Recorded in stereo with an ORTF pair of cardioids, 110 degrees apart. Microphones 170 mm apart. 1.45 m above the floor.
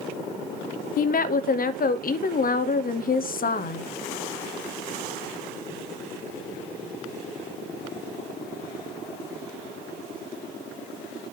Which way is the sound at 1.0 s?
60° left.